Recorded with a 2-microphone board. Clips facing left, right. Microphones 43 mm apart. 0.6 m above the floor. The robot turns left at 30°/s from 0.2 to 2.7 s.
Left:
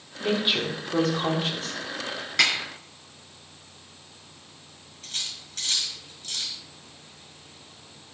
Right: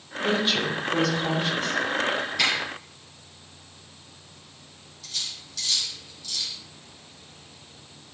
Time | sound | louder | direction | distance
0.2 | a woman speaking | right 1 dB | 170° left | 1.7 m
2.4 | a snare drum | left 3 dB | 75° left (ahead or behind) | 4 m
5.0 | cutlery clinking | even | 45° left (ahead or behind) | 1.9 m